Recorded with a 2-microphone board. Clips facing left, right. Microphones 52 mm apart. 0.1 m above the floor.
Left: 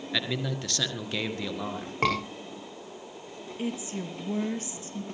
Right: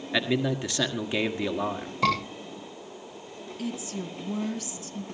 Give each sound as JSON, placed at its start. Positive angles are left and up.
{"t": 0.1, "sound": "a man speaking", "side_deg": -15, "distance_m": 1.6}
{"t": 2.0, "sound": "a scream", "side_deg": 45, "distance_m": 7.0}
{"t": 3.6, "sound": "a woman speaking", "side_deg": 25, "distance_m": 2.0}